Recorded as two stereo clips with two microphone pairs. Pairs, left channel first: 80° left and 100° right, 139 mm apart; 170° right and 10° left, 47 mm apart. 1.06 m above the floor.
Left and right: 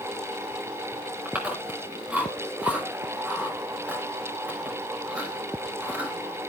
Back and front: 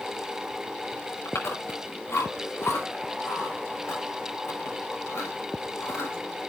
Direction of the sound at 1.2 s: 175° left.